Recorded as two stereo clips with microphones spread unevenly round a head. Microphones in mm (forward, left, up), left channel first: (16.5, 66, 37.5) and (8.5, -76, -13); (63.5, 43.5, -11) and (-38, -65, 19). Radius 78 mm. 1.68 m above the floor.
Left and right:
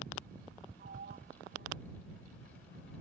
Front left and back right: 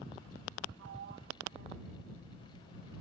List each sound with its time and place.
0.8 s a sliding door: 130° right